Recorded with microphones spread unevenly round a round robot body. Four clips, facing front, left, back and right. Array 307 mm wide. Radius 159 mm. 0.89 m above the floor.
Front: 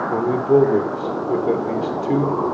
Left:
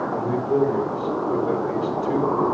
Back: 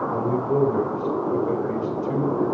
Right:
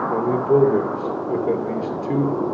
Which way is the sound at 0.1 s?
25° right.